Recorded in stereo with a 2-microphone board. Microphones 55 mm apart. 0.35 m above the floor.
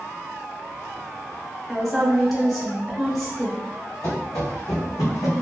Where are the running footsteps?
65° left (ahead or behind), 1.8 m; by 5.4 s 70° left (ahead or behind), 1.1 m.